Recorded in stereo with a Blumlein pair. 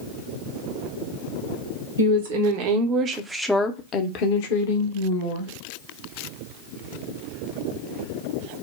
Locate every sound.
2.0 s a woman speaking: 60° right, 1.2 m; by 5.5 s 70° left, 1.6 m